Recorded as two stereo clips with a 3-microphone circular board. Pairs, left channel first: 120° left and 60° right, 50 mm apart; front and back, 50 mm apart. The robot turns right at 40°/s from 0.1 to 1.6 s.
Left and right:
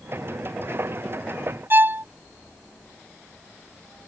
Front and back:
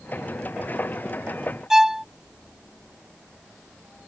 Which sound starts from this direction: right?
A violin, at 1.7 s.